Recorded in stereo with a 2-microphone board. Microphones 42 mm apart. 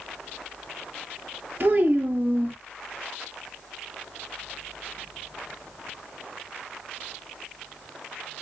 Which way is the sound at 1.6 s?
45° right (ahead or behind).